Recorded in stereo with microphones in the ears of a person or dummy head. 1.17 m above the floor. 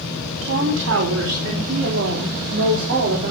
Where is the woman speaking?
70° right (ahead or behind), 2.5 m; by 3.3 s 55° right (ahead or behind), 4 m.